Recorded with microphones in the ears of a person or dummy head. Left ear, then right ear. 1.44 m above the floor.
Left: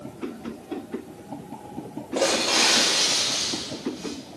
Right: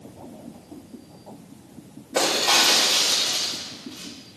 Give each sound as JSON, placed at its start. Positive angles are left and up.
{"t": 2.1, "sound": "breaking glass", "side_deg": -45, "distance_m": 6.5}